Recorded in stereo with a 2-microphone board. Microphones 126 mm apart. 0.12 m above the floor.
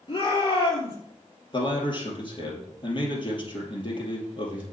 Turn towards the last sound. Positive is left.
turn(degrees=40)  # may be behind; listen again after turning